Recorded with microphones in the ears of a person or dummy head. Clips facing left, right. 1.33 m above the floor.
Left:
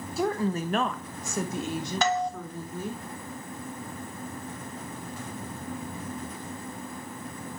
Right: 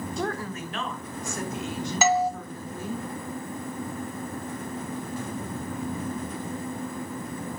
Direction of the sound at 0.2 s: Centre (ahead or behind).